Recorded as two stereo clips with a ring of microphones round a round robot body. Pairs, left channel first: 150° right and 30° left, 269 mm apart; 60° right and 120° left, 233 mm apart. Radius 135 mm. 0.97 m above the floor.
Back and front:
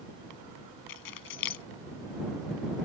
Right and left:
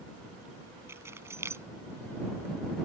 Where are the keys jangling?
160° right.